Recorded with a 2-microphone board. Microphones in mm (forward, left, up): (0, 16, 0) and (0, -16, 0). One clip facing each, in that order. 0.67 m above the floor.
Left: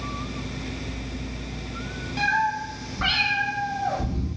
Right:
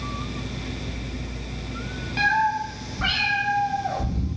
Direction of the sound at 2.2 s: 25° right (ahead or behind).